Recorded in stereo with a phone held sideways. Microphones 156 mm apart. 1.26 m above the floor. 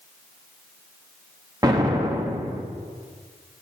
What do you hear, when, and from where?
1.6 s an explosion: 25° right (ahead or behind), 1.7 m